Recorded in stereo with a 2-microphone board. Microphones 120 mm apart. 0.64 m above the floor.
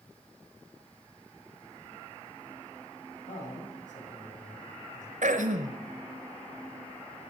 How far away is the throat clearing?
About 1.2 m.